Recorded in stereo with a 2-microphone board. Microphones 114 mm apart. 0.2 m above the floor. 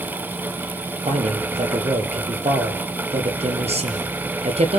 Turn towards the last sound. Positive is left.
turn(degrees=-65)  # may be behind; listen again after turning